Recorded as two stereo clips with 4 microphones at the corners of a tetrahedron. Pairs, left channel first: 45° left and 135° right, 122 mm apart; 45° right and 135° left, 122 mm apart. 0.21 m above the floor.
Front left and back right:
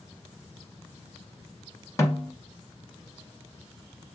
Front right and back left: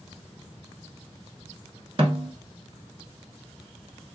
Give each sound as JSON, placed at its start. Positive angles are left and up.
{"t": 2.0, "sound": "a snare drum", "azimuth_deg": 105, "distance_m": 0.9}